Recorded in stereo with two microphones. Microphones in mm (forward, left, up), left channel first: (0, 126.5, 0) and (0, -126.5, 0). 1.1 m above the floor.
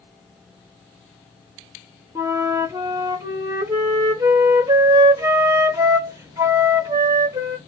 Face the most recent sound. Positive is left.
turn(degrees=-15)  # may be behind; listen again after turning